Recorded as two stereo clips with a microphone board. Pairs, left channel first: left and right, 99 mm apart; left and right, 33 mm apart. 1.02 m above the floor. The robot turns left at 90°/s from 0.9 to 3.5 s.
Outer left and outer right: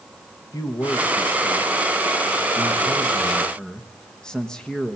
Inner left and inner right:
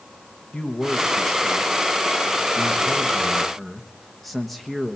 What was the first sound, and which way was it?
A man speaking, 45° left.